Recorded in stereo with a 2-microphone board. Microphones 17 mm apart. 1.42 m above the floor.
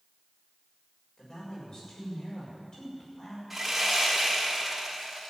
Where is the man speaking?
50° left (ahead or behind), 6.5 m.